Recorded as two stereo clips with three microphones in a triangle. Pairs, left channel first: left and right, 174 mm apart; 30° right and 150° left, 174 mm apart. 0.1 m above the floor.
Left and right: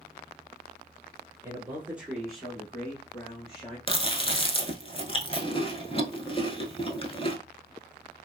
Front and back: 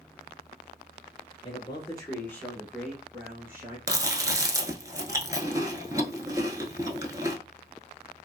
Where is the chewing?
100° left, 0.6 m.